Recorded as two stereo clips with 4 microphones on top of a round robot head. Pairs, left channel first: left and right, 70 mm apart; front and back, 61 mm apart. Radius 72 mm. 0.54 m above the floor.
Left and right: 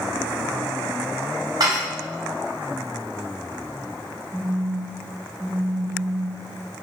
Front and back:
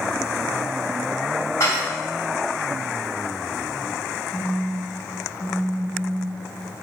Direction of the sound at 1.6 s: 55° right.